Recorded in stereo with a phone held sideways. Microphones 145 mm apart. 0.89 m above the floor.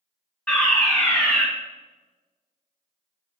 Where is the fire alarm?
15° left (ahead or behind), 2.5 m.